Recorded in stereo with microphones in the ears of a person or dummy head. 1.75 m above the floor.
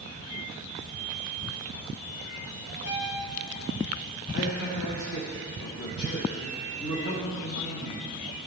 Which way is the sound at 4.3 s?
70° left (ahead or behind).